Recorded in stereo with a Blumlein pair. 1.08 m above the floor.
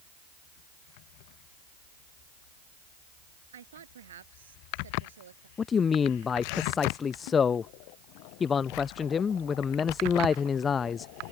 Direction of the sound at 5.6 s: 20° left.